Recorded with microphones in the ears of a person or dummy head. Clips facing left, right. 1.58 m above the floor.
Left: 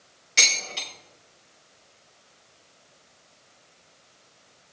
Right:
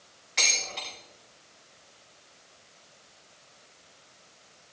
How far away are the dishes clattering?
About 6.5 m.